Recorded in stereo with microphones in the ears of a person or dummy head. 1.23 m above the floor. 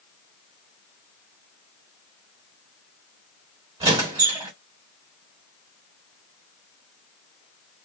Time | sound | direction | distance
3.8 | a squeak | 15° right (ahead or behind) | 0.7 m